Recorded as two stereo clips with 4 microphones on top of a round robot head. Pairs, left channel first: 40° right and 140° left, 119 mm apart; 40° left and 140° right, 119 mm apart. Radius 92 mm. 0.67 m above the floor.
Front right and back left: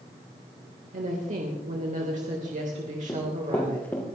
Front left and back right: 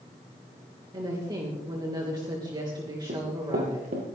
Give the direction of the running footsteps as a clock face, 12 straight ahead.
4 o'clock.